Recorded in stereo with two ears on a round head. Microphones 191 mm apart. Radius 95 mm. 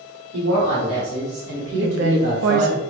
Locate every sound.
0.3 s a woman speaking: 75° right (ahead or behind), 2.5 m; by 2.7 s 35° right (ahead or behind), 0.7 m
1.7 s a woman speaking: 60° right (ahead or behind), 0.9 m